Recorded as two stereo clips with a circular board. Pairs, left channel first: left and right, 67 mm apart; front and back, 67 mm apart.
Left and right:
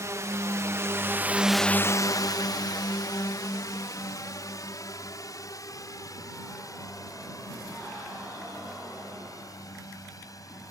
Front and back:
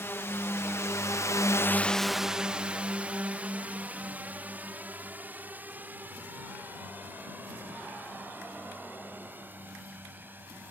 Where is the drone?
50° right; by 10.7 s 120° left.